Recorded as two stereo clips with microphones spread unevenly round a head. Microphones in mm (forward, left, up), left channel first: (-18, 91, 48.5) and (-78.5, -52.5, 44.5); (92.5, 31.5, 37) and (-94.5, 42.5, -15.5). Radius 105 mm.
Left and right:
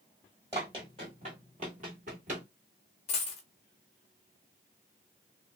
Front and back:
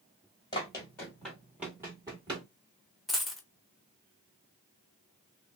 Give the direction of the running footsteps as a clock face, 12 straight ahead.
2 o'clock.